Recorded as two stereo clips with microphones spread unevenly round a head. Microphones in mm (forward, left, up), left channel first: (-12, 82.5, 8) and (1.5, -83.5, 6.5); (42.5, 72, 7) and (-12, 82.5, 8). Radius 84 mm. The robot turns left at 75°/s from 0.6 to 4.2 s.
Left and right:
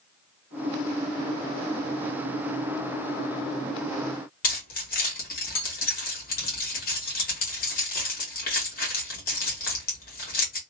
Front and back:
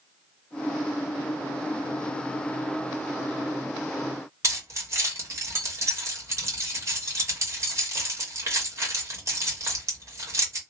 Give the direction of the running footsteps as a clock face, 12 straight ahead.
I don't hear running footsteps.